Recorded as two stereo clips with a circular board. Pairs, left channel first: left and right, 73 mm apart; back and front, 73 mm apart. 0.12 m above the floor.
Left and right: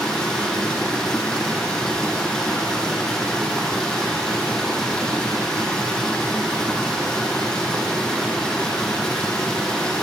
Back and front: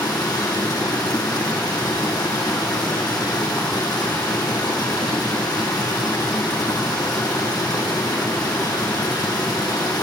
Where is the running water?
170° left, 3.5 m.